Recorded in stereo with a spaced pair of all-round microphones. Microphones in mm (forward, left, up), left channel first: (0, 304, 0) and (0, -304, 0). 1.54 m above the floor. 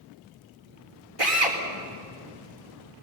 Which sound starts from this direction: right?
A drill, at 1.2 s.